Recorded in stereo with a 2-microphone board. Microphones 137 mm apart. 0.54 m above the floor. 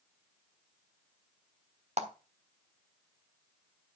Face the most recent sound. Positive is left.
turn(degrees=-55)  # may be behind; listen again after turning